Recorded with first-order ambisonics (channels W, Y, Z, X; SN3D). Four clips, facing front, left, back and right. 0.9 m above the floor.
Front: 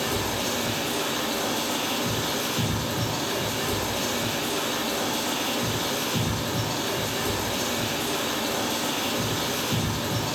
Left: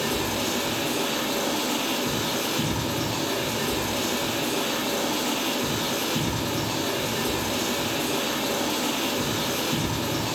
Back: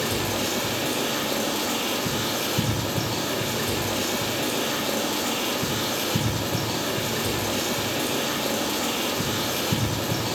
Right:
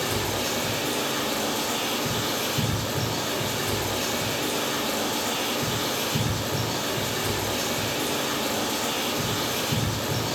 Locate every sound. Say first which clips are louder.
0.0 s running water: left 1 dB, back 1 dB; 160° right, 2.0 m